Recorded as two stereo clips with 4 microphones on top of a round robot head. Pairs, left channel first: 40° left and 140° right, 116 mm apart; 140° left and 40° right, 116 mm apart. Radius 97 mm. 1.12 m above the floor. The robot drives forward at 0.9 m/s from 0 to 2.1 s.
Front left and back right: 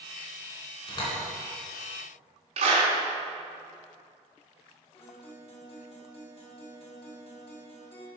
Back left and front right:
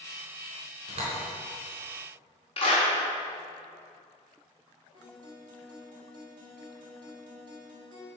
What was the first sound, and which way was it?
A door slam, 5° right.